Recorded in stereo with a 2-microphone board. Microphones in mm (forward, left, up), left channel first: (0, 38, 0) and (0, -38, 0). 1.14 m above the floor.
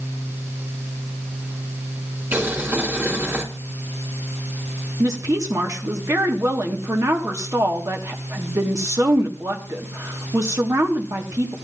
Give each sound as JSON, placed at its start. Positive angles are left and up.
{"t": 2.3, "sound": "boiling", "side_deg": -25, "distance_m": 1.9}
{"t": 5.0, "sound": "a woman speaking", "side_deg": -45, "distance_m": 1.3}